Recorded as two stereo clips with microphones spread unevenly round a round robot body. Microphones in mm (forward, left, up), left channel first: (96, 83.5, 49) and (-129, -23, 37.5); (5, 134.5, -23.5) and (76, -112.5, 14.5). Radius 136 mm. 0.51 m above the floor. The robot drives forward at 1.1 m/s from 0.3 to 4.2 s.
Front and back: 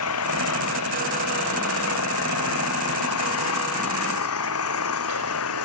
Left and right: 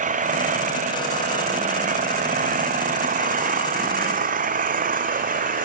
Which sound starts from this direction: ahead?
An engine running, at 0.0 s.